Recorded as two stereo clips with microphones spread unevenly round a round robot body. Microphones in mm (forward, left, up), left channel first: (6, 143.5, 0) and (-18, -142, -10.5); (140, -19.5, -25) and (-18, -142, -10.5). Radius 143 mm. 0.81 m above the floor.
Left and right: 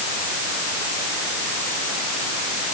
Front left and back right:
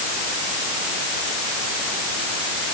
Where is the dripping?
I don't hear dripping.